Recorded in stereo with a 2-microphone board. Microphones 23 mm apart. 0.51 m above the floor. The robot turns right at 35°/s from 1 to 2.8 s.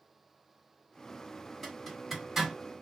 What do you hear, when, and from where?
1.6 s a zipper: 10° left (ahead or behind), 1.7 m; by 2.5 s 10° right (ahead or behind), 1.7 m